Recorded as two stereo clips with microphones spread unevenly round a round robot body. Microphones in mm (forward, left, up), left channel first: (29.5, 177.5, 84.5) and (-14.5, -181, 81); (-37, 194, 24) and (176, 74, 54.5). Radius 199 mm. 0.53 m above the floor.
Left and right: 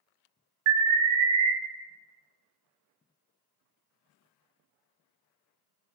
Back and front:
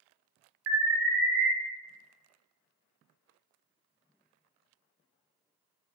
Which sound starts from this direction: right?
An alarm, at 0.7 s.